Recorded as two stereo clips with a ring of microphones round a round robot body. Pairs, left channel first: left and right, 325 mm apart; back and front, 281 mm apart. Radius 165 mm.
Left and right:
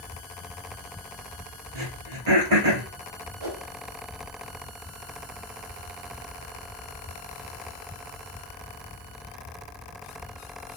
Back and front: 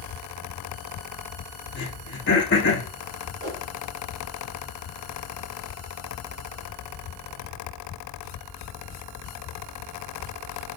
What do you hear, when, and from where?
1.8 s throat clearing: 120° right, 3.5 m
3.4 s a whoosh: 65° right, 2 m